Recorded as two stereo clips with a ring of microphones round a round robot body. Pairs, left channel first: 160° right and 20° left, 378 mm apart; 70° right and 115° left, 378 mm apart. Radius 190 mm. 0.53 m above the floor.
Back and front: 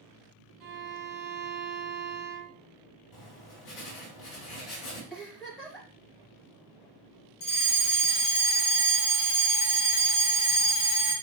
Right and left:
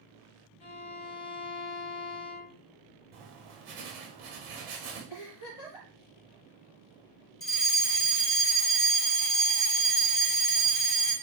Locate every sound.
0.6 s a violin: 20° right, 1.9 m
3.1 s writing: 170° left, 4 m
5.1 s a giggle: 70° right, 3.5 m
7.4 s a fire alarm: 135° right, 3 m